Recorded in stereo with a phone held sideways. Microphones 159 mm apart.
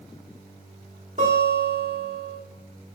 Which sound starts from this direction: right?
A guitar, at 1.2 s.